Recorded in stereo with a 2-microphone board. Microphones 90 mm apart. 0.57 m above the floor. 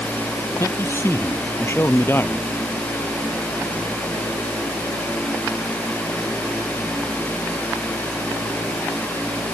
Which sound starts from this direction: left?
A man speaking, at 0.6 s.